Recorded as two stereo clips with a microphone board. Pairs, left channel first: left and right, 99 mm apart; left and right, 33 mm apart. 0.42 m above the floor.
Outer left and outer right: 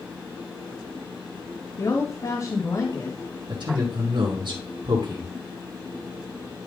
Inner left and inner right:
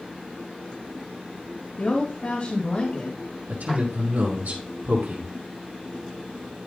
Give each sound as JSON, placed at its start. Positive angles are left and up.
{"t": 1.8, "sound": "a woman speaking", "side_deg": 50, "distance_m": 2.5}
{"t": 3.5, "sound": "a man speaking", "side_deg": -65, "distance_m": 4.5}